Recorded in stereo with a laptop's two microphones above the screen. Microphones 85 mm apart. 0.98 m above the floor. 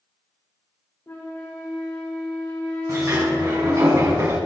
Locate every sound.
1.1 s a flute: 30° left (ahead or behind), 1.8 m
2.9 s a sliding door: 40° right (ahead or behind), 2.5 m